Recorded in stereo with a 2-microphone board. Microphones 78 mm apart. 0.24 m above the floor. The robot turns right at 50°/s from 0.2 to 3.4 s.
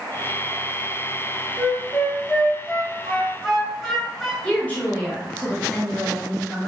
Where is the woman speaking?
20° left (ahead or behind), 1.4 m.